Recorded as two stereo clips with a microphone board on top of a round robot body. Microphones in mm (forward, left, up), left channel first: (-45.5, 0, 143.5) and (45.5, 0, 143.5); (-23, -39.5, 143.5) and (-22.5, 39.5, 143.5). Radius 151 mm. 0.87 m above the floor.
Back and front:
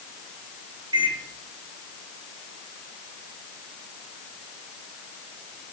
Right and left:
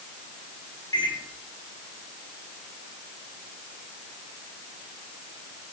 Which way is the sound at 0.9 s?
40° right.